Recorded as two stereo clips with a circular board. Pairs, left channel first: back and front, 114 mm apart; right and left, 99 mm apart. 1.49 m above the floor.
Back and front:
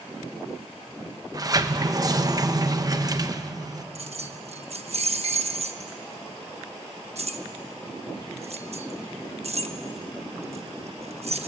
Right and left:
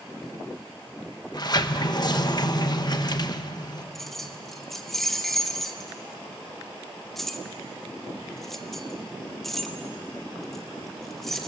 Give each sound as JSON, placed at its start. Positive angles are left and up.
{"t": 1.3, "sound": "a sliding door", "azimuth_deg": -50, "distance_m": 1.0}
{"t": 4.0, "sound": "keys jangling", "azimuth_deg": -5, "distance_m": 1.2}